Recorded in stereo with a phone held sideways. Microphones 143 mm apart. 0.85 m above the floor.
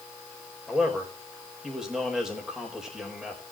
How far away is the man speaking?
About 4 m.